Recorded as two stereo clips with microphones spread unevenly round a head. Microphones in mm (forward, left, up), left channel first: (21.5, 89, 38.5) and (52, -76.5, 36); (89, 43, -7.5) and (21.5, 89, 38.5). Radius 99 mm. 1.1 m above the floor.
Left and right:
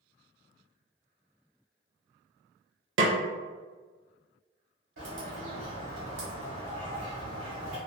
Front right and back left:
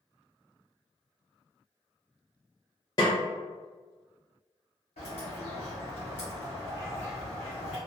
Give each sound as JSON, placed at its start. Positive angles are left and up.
{"t": 3.0, "sound": "a snare drum", "azimuth_deg": -100, "distance_m": 0.5}
{"t": 5.0, "sound": "a bird", "azimuth_deg": -80, "distance_m": 1.4}